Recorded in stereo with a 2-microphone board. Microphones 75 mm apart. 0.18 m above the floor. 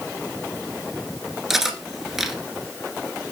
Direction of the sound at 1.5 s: 5° right (ahead or behind).